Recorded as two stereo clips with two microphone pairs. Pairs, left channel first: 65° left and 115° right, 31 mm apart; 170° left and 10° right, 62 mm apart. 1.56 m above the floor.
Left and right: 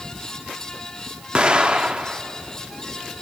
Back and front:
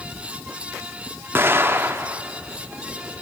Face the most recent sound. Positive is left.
turn(degrees=-65)